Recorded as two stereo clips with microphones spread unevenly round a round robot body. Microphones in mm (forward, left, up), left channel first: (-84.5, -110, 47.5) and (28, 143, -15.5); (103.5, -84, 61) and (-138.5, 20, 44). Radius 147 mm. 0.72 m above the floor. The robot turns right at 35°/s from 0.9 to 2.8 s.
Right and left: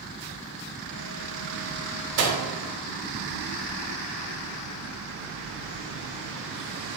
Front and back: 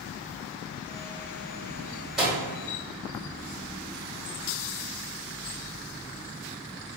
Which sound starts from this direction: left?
A microwave, at 2.2 s.